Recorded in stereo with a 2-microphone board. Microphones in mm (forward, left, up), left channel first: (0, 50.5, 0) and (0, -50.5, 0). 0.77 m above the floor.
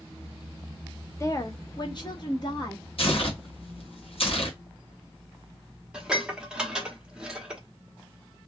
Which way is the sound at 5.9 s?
5° right (ahead or behind).